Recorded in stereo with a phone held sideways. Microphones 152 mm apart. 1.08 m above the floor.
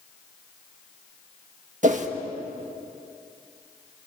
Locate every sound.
1.8 s a whoosh: 55° right (ahead or behind), 1.5 m